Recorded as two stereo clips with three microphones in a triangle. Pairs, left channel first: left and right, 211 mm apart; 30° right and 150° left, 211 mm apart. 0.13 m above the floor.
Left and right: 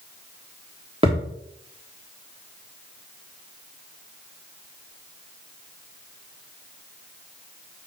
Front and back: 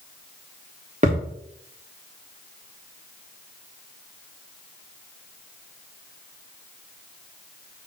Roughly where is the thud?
Behind right.